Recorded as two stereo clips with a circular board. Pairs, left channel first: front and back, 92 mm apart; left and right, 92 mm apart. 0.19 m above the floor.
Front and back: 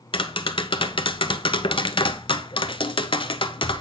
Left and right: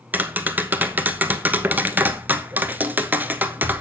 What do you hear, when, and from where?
0.1 s tapping: 20° right, 0.6 m